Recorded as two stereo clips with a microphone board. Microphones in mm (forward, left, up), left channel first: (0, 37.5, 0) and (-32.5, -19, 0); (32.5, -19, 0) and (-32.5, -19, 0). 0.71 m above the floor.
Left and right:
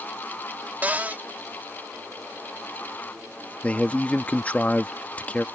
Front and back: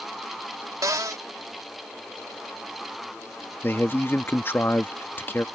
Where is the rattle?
No rattle in this recording.